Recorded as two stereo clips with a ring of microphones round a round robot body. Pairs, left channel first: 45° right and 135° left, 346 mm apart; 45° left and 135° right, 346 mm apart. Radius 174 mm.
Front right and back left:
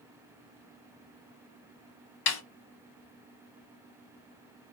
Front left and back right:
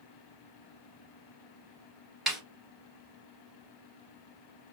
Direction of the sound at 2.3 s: 45° right.